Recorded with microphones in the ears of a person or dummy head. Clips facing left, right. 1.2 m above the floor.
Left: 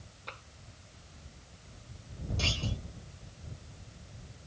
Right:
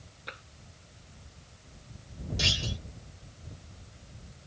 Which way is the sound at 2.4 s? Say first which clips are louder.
Even; 30° right (ahead or behind).